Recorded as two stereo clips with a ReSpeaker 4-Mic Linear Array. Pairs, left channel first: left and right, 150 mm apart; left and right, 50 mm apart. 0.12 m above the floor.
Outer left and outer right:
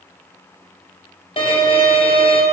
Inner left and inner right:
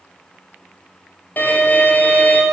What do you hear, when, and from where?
1.4 s a violin: 40° left (ahead or behind), 0.9 m